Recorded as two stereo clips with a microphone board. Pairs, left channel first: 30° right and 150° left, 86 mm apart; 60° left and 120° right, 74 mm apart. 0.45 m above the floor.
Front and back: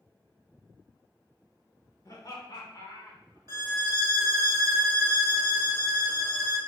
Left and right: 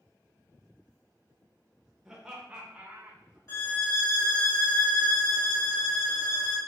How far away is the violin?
About 1.3 m.